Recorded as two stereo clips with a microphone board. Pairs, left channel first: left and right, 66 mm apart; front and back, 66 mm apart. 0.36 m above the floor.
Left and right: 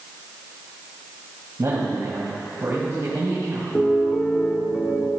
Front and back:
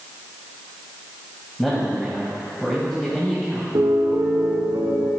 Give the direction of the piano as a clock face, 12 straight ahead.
6 o'clock.